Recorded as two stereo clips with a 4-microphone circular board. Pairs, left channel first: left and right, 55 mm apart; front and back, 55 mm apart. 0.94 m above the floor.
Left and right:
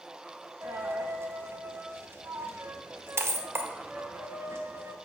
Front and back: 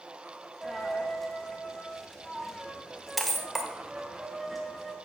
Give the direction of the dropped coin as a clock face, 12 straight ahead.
3 o'clock.